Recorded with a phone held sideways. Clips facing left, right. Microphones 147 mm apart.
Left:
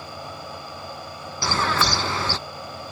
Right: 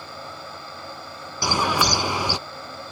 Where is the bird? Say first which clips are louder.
Right 1 dB; 15° right (ahead or behind).